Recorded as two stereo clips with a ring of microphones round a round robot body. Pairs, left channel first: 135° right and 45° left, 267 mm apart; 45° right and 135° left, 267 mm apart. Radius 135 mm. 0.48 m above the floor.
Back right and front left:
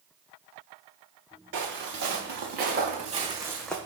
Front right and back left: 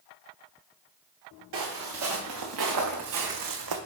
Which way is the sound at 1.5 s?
95° left.